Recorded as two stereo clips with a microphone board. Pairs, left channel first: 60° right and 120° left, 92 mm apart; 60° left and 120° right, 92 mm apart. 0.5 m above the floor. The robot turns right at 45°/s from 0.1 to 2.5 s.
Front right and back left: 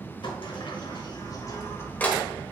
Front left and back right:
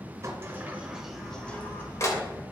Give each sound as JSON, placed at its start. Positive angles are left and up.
{"t": 0.2, "sound": "a sliding door", "azimuth_deg": -70, "distance_m": 1.4}